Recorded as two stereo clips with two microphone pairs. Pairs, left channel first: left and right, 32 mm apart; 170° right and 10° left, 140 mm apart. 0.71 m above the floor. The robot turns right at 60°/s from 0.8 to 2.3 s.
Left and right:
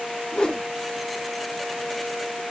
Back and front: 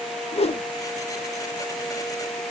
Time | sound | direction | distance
0.3 | a whoosh | 150° left | 0.7 m